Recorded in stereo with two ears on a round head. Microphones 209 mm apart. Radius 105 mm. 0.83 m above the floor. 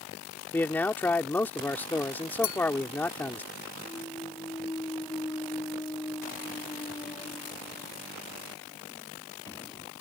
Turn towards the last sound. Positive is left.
turn(degrees=15)  # may be behind; listen again after turning